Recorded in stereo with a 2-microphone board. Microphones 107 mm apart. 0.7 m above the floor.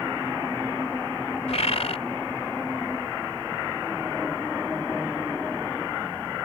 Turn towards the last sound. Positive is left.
turn(degrees=75)  # may be behind; listen again after turning